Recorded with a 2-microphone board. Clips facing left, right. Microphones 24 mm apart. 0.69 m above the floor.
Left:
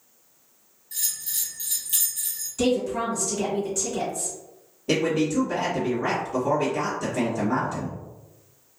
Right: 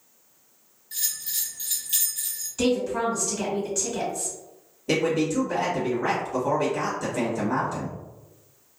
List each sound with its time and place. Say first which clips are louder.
0.9 s a bell: even; 20° right (ahead or behind), 1.1 m
2.6 s a woman speaking: even; 15° right (ahead or behind), 1.6 m
4.9 s a man speaking: even; 10° left (ahead or behind), 1.4 m